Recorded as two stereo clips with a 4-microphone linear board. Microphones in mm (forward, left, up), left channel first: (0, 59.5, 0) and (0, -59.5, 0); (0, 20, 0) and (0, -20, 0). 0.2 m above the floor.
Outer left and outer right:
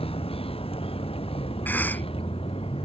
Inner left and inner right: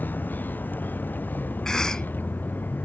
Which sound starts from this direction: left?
A vehicle, at 0.0 s.